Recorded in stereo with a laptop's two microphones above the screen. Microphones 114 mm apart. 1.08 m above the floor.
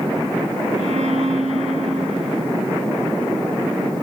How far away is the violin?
About 1.3 m.